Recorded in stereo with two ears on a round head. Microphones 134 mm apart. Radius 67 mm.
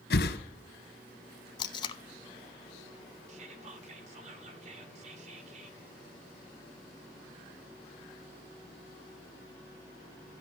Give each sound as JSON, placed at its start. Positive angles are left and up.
{"t": 0.1, "sound": "a whoosh", "side_deg": 80, "distance_m": 1.4}
{"t": 1.6, "sound": "tape being pulled", "side_deg": 30, "distance_m": 0.7}
{"t": 3.3, "sound": "whispering", "side_deg": -45, "distance_m": 1.7}